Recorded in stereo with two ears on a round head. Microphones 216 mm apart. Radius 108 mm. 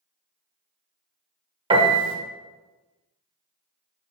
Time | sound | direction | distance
1.7 | a piano | 20° right (ahead or behind) | 0.7 m